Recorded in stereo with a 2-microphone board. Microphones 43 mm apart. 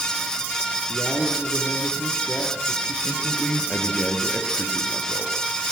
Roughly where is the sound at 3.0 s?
Centre.